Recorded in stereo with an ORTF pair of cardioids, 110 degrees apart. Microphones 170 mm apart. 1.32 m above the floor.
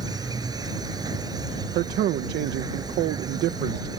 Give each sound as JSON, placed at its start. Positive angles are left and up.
{"t": 0.0, "sound": "an insect", "azimuth_deg": -20}
{"t": 1.8, "sound": "a man speaking", "azimuth_deg": -70}